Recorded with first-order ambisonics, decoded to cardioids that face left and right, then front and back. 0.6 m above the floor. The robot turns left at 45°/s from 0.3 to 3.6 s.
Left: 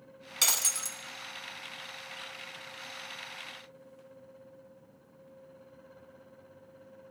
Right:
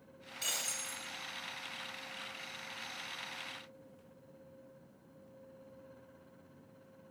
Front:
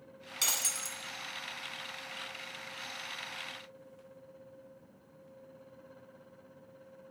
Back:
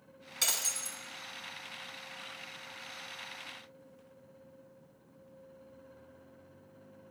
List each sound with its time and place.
0.4 s breaking glass: 85° left, 1.3 m; by 1.0 s 60° left, 1.3 m